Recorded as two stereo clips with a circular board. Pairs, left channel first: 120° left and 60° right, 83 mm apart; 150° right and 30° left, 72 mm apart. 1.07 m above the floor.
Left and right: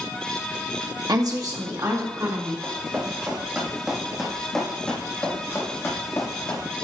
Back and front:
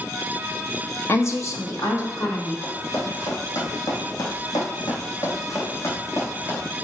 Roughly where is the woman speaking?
Right.